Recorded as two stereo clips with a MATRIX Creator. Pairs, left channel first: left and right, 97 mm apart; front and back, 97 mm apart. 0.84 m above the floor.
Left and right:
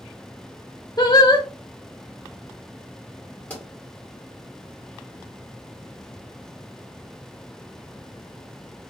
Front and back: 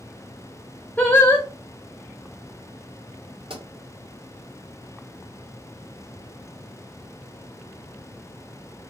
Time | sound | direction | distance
1.0 | singing | 65° left | 1.0 m
3.5 | a pop | 165° left | 2 m